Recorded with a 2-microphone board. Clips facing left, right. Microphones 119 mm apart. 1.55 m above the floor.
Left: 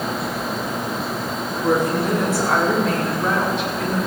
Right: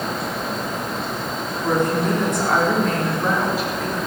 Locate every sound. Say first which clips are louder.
1.6 s a woman speaking: left 1 dB; 10° left (ahead or behind), 4.5 m; by 4.0 s 5° right (ahead or behind), 6 m